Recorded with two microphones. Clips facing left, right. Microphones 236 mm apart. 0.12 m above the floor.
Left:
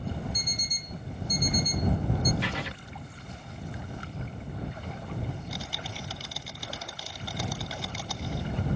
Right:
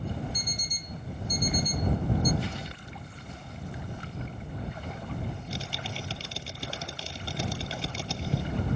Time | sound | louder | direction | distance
0.3 | an alarm clock | even | 65° left (ahead or behind) | ?
2.4 | writing | left 2 dB | 80° left | ?
5.3 | typing on a keyboard | right 1 dB | 30° right (ahead or behind) | ?